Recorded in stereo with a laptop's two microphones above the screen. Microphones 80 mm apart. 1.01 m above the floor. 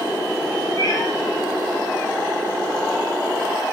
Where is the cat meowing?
45° left (ahead or behind), 4 m.